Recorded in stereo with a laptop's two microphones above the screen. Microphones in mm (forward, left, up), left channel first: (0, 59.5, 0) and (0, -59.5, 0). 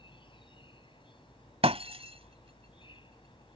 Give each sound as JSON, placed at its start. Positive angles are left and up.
{"t": 0.0, "sound": "an insect", "side_deg": 45}
{"t": 1.6, "sound": "breaking glass", "side_deg": -55}